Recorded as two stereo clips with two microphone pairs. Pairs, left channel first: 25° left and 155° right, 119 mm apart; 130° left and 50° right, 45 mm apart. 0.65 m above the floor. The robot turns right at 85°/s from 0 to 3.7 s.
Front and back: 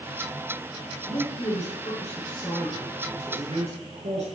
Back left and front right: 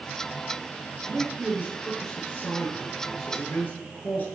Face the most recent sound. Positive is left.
turn(degrees=-165)